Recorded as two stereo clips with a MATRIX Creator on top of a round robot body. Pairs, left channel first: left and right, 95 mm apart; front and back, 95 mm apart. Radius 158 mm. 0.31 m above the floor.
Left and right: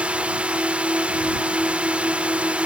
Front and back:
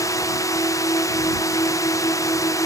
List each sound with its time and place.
0.0 s a drone: 20° right